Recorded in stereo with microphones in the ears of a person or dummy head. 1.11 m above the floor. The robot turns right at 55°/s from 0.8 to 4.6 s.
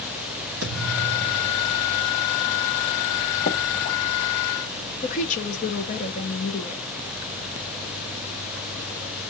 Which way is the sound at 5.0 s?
40° left (ahead or behind).